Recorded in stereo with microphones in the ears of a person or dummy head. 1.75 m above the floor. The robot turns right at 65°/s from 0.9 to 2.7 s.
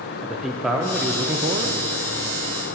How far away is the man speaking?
About 0.6 m.